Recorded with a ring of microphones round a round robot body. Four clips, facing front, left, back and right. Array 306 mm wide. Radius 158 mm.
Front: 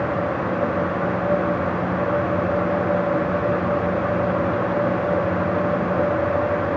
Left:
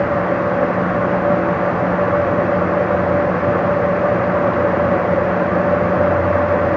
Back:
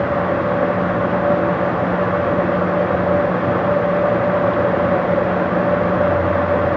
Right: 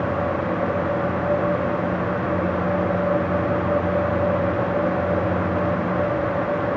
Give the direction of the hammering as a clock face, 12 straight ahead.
I don't hear hammering.